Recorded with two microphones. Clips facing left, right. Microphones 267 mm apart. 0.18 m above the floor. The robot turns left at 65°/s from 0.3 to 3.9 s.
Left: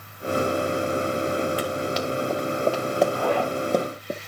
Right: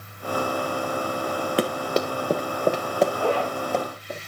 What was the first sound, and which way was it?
Running footsteps, 75° right (ahead or behind).